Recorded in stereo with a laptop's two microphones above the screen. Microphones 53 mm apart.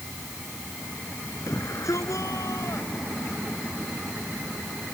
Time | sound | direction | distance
1.5 | a shout | 70° left (ahead or behind) | ?